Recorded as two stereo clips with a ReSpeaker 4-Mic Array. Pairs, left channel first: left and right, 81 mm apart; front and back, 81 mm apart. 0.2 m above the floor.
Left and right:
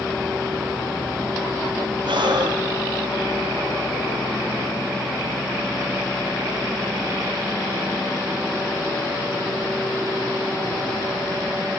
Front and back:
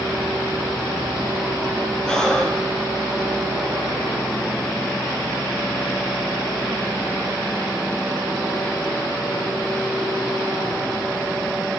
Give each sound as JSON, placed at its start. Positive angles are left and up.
{"t": 2.0, "sound": "breathing", "azimuth_deg": -85, "distance_m": 4.5}